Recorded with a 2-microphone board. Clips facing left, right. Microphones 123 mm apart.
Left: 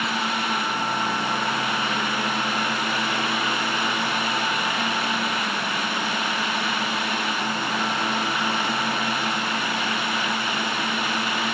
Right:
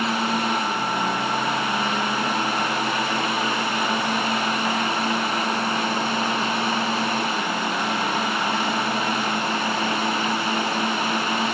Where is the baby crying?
I don't hear a baby crying.